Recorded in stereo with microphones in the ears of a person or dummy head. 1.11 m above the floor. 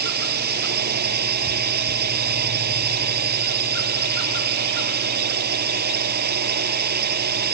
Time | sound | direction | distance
0.0 | a drone | 45° right (ahead or behind) | ?